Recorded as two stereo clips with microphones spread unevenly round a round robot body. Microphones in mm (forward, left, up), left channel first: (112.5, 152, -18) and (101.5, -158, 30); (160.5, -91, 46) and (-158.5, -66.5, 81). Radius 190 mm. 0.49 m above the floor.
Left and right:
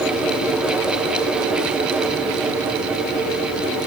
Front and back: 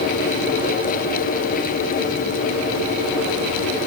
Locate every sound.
Only background noise.